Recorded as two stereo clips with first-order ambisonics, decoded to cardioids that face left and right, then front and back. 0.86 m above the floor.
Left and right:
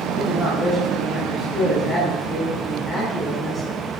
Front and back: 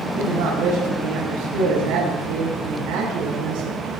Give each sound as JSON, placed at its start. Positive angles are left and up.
{"t": 0.1, "sound": "a man speaking", "azimuth_deg": 165, "distance_m": 6.0}